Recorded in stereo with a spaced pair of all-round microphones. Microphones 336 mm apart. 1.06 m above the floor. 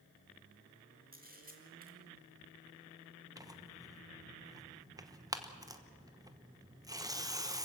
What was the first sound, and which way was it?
A camera shutter, 25° right (ahead or behind).